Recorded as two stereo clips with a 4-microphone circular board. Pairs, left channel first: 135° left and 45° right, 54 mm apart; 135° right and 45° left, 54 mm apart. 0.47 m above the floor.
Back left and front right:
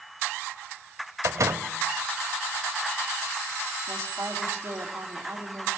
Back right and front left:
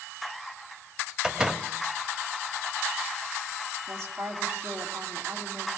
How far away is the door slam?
About 1.4 m.